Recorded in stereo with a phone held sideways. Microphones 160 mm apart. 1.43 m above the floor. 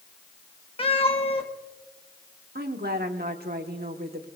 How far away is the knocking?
No knocking in this recording.